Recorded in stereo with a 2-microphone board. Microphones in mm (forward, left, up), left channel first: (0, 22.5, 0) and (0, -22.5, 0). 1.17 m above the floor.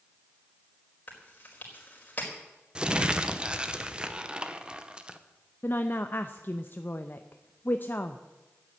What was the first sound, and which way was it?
Chewing, 40° left (ahead or behind).